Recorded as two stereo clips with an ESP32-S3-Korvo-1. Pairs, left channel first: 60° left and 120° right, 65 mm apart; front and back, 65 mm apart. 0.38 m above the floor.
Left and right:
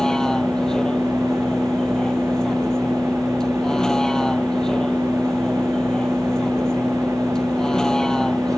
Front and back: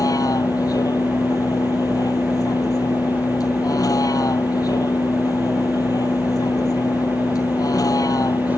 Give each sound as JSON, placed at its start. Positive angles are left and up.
{"t": 0.0, "sound": "a vehicle", "azimuth_deg": -20}